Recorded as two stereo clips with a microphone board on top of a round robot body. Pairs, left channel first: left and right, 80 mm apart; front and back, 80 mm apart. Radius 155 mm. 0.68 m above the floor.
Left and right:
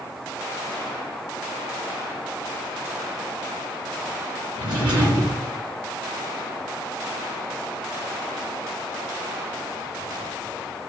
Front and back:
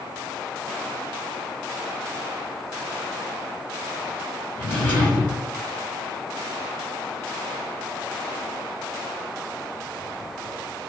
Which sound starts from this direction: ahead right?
A drawer, at 4.6 s.